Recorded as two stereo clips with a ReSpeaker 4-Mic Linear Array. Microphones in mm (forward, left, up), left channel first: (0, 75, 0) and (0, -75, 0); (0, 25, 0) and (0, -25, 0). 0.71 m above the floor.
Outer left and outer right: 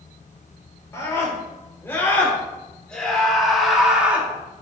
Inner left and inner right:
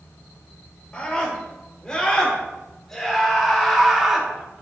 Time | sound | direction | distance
0.9 | a scream | 20° left (ahead or behind) | 3.5 m